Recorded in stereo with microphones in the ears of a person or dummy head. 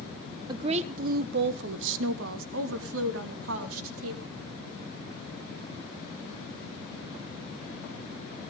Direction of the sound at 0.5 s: 30° right (ahead or behind).